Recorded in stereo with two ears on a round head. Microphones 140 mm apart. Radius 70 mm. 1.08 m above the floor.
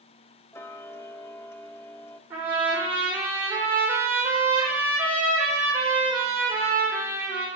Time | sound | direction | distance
0.5 | ticking | 15° left (ahead or behind) | 0.7 m
2.3 | a trumpet | 15° right (ahead or behind) | 5 m